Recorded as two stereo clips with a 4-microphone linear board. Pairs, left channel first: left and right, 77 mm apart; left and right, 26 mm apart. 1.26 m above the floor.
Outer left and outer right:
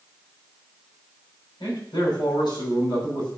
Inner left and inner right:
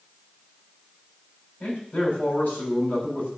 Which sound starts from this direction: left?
A man speaking, at 1.6 s.